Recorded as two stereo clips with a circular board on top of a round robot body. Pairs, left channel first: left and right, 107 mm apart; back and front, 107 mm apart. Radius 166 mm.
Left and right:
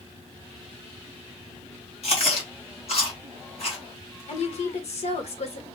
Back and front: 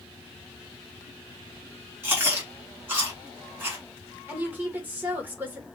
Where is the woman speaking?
75° left, 1.6 m.